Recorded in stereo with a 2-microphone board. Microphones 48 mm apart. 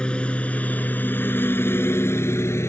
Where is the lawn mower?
20° left (ahead or behind); by 2.7 s 70° left (ahead or behind).